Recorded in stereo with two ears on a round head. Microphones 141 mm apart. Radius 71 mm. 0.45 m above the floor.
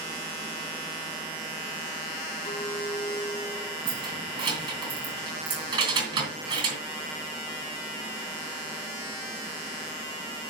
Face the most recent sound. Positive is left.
turn(degrees=-30)  # may be behind; listen again after turning